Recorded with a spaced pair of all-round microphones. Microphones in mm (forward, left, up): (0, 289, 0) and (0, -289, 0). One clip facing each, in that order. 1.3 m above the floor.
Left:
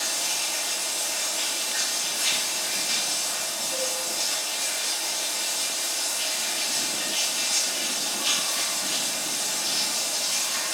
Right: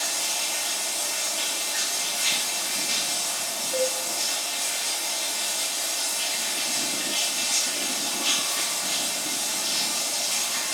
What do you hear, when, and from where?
0.0 s running water: 30° right (ahead or behind), 1.0 m
3.7 s a cowbell: 65° left (ahead or behind), 1.3 m